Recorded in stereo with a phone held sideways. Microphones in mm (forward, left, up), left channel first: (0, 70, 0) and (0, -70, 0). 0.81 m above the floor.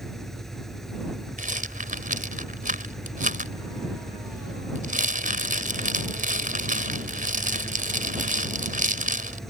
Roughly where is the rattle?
Right.